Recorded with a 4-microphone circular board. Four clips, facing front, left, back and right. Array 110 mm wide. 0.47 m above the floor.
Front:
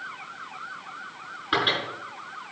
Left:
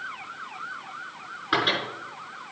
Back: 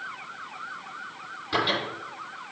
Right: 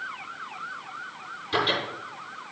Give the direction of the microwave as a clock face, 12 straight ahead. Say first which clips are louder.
Left 1 dB, front 1 dB; 10 o'clock.